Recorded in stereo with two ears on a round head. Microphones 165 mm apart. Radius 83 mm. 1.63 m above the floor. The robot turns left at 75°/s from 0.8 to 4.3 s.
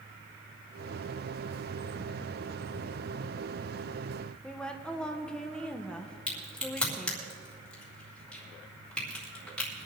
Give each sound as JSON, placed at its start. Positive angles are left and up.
{"t": 4.4, "sound": "a woman speaking", "side_deg": 5, "distance_m": 1.1}
{"t": 6.3, "sound": "a crack", "side_deg": 5, "distance_m": 3.5}